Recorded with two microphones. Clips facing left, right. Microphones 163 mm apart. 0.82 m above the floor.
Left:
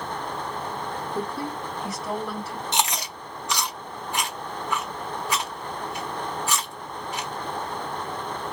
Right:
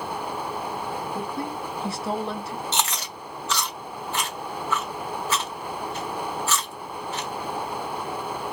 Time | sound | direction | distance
1.1 | a woman speaking | 15° right (ahead or behind) | 0.9 m
2.7 | chewing | 15° left (ahead or behind) | 0.8 m